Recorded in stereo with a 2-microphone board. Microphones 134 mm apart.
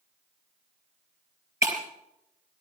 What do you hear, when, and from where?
1.6 s breaking glass: 25° right (ahead or behind), 4 m